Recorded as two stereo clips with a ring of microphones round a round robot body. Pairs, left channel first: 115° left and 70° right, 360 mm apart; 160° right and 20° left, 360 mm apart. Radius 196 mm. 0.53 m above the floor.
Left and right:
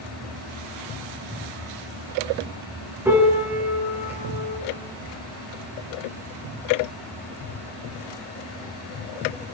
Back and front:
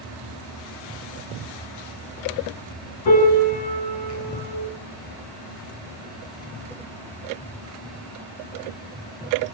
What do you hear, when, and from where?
3.0 s a piano: 150° right, 7 m